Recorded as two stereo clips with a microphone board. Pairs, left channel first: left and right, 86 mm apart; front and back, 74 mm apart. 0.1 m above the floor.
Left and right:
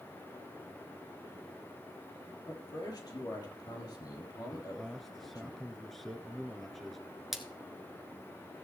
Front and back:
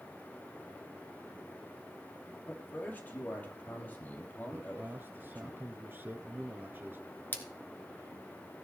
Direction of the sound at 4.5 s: 175° left.